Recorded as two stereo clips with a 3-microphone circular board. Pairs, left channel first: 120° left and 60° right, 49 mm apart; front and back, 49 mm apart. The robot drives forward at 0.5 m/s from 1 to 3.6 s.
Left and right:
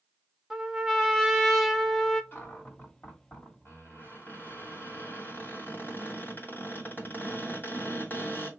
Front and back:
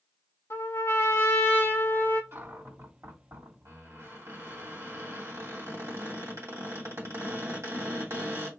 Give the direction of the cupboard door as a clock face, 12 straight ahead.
7 o'clock.